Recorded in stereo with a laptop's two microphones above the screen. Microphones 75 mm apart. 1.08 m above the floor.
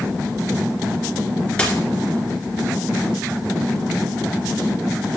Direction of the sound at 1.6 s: 15° left (ahead or behind).